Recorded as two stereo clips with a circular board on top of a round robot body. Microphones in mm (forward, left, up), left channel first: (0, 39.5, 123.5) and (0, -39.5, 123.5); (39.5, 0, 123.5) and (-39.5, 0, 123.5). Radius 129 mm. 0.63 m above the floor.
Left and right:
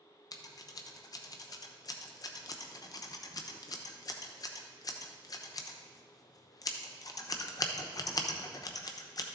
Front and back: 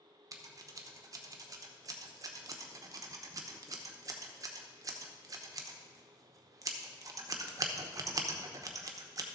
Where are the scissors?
135° left, 0.9 m.